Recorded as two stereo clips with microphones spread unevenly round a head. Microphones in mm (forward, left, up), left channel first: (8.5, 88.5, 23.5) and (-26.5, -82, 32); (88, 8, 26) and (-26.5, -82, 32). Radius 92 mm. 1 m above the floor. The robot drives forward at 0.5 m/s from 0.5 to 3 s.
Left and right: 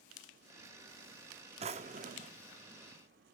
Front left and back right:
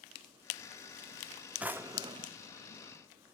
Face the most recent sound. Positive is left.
turn(degrees=-145)